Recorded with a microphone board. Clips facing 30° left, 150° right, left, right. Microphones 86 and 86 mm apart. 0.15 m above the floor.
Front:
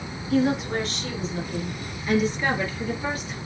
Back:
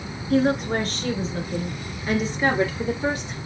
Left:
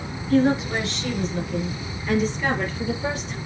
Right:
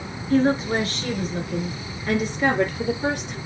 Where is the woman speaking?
130° right, 2 m; by 3.4 s 90° right, 3.5 m.